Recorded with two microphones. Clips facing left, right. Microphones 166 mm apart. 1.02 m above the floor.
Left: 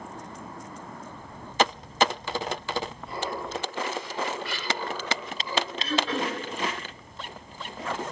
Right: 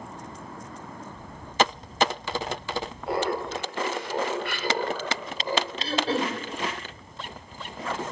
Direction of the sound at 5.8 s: 35° right (ahead or behind).